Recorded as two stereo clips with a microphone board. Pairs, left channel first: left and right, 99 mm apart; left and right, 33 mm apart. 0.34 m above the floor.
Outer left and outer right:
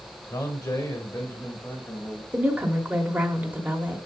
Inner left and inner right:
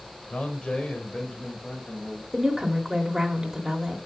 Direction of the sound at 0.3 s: 35° left (ahead or behind).